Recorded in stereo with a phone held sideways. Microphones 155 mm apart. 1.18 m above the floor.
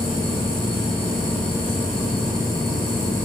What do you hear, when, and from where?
0.0 s a machine running: 35° left (ahead or behind), 1.1 m